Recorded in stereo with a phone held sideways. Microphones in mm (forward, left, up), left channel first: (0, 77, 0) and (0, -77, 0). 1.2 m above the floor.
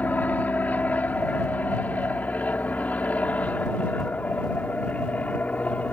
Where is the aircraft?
10° left (ahead or behind).